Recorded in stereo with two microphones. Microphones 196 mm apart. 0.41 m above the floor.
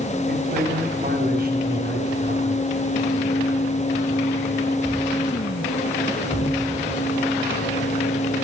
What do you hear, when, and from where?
0.3 s a man speaking: 45° right (ahead or behind), 2.5 m